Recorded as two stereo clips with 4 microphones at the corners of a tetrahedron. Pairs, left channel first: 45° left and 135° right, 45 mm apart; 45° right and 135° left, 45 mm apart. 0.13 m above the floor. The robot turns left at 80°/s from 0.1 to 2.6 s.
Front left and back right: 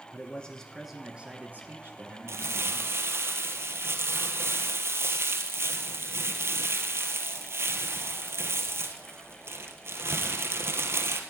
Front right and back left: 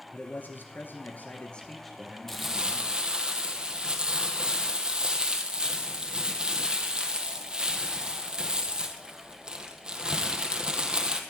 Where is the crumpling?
130° right, 1.4 m; by 11.2 s 155° right, 1.4 m.